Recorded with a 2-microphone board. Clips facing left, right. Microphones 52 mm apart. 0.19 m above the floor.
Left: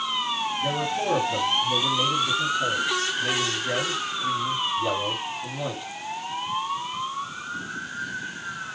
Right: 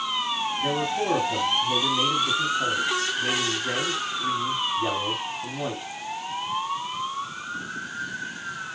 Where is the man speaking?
30° right (ahead or behind), 5 m.